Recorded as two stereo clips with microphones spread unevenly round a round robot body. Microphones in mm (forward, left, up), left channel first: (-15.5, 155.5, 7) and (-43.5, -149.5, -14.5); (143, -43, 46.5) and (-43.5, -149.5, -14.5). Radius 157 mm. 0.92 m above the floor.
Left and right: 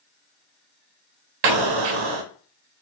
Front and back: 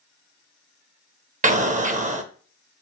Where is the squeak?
I don't hear a squeak.